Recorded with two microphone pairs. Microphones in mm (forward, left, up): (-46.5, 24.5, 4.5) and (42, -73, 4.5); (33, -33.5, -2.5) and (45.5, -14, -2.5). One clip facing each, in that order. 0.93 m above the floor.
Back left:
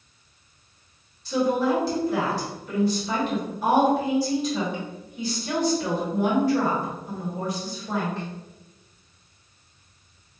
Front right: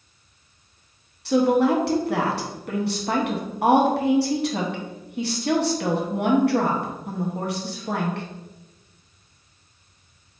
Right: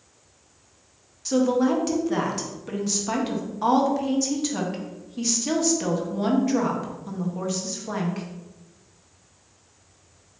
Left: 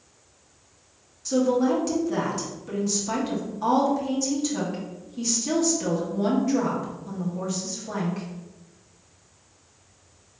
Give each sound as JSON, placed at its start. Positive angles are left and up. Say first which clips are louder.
{"t": 1.2, "sound": "a woman speaking", "louder": "front right 4 dB, right 1 dB", "azimuth_deg": -55, "distance_m": 0.8}